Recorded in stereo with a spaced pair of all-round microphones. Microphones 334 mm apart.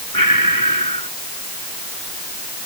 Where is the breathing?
85° left.